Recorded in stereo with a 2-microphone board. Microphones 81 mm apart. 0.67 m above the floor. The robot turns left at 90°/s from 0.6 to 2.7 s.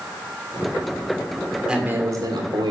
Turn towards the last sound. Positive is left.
turn(degrees=-100)